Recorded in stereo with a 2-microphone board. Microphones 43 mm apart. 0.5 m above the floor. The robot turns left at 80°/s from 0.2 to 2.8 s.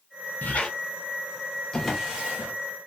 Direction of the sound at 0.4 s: 40° left (ahead or behind).